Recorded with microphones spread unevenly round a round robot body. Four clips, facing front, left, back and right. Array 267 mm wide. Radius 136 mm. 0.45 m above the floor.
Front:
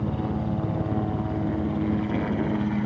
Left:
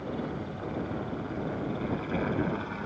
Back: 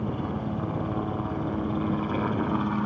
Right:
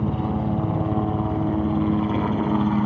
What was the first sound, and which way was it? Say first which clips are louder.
A helicopter: right 10 dB, front 2 dB; 75° right.